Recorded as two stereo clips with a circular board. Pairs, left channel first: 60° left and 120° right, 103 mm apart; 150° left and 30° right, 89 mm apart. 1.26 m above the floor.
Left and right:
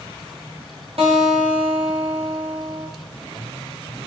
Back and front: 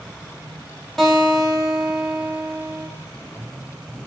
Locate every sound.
1.0 s a guitar: 125° right, 1.1 m